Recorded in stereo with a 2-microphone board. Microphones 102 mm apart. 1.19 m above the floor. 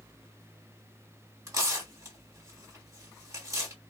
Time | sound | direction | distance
1.5 | tearing paper | 30° right (ahead or behind) | 1.7 m